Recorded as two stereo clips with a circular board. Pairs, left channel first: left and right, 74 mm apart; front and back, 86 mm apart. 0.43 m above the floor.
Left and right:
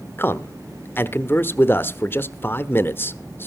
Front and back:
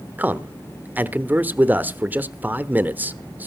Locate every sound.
0.2 s a man speaking: 120° left, 0.9 m